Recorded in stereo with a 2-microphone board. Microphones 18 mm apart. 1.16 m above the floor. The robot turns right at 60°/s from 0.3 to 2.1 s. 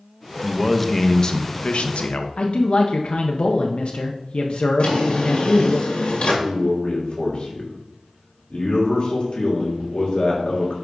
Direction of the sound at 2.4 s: 65° left (ahead or behind).